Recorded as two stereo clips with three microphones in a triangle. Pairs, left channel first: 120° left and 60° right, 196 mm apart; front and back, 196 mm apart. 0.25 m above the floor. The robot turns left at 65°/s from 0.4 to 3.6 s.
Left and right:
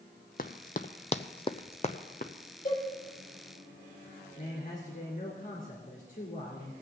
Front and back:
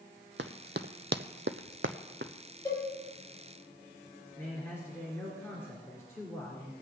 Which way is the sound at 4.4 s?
75° left.